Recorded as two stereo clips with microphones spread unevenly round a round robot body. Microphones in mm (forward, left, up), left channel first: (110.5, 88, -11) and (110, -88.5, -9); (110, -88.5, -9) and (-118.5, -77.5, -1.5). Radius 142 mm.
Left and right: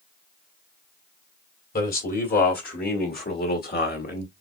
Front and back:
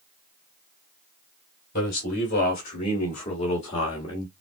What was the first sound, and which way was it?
A man speaking, 55° left.